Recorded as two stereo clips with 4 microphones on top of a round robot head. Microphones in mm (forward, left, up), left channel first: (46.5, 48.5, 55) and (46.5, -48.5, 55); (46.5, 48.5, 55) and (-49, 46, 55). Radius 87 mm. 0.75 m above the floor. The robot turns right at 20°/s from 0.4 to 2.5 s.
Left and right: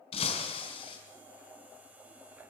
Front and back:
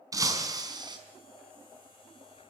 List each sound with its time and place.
0.1 s breaking glass: 130° left, 4.5 m; by 1.0 s 140° left, 4.5 m